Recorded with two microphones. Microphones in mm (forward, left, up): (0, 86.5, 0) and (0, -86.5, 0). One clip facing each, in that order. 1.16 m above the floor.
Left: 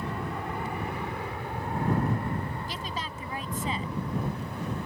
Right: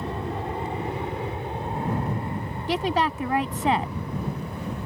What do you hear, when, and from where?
0.0 s an aircraft: 25° right (ahead or behind); by 4.9 s 15° right (ahead or behind)
2.7 s a woman speaking: 70° right (ahead or behind)